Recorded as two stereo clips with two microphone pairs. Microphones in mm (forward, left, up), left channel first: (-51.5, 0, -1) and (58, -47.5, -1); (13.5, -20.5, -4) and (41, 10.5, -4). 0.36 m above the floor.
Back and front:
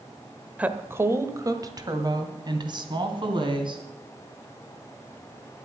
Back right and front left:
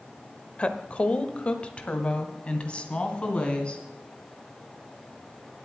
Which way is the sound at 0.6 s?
90° right.